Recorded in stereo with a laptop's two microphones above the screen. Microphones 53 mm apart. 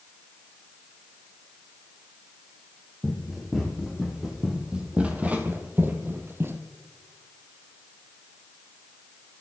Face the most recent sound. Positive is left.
turn(degrees=-45)  # may be behind; listen again after turning